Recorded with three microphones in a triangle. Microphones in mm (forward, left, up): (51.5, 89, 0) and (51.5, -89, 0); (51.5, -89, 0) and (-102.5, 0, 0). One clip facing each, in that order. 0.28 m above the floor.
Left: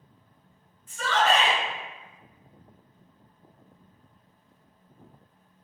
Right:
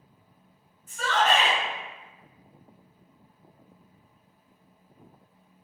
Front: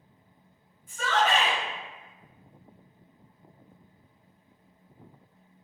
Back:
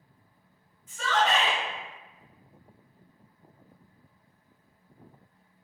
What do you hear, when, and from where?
0.9 s a shout: 55° right, 1.8 m